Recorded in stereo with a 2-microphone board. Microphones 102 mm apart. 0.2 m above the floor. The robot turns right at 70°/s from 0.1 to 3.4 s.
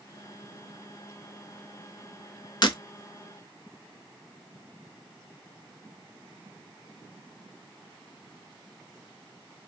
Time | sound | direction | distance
2.6 | breaking glass | 50° left (ahead or behind) | 0.6 m